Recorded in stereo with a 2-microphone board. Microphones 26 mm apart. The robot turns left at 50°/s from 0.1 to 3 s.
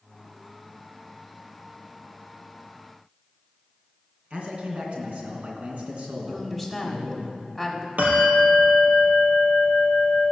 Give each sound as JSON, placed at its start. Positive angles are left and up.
{"t": 4.3, "sound": "a man speaking", "side_deg": -55, "distance_m": 2.5}
{"t": 6.3, "sound": "a woman speaking", "side_deg": -5, "distance_m": 1.4}
{"t": 8.0, "sound": "a bell", "side_deg": -80, "distance_m": 2.5}